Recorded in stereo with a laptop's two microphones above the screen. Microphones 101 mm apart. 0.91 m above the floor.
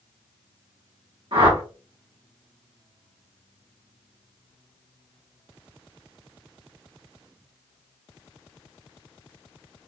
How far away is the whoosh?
About 1.1 m.